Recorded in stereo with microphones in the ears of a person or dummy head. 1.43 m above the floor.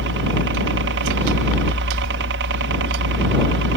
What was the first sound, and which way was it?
A helicopter, 60° right (ahead or behind).